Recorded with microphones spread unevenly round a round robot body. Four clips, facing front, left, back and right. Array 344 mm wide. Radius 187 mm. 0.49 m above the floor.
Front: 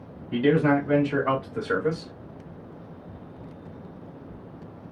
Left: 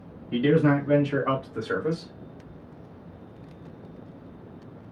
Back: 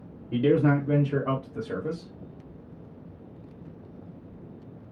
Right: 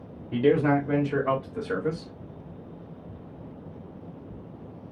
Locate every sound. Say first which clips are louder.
0.3 s a man speaking: even, front 1 dB; 160° right, 1.7 m; by 2.1 s 20° left, 1.3 m